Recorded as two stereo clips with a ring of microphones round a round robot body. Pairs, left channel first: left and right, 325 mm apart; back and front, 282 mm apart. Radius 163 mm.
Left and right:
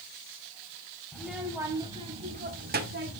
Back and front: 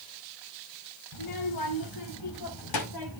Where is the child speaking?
Straight behind, 3.5 m; by 3.2 s 145° right, 4.5 m.